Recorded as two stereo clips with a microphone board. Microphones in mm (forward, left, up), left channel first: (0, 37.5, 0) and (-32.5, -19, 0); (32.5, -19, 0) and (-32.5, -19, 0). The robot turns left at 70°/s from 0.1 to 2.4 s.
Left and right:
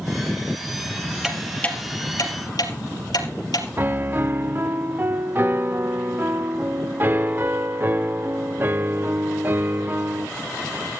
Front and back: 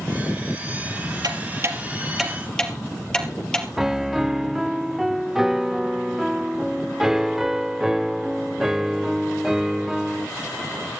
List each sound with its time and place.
1.2 s ticking: 160° left, 3 m; by 3.7 s 75° left, 3 m
3.8 s a piano: 100° right, 0.6 m